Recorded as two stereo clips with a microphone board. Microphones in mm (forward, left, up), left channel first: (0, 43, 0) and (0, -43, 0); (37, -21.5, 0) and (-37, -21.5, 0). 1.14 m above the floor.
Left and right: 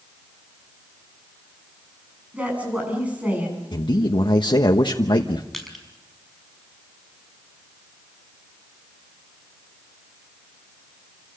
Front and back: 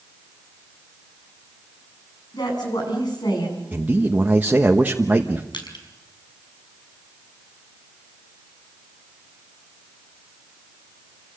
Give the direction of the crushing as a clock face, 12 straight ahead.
12 o'clock.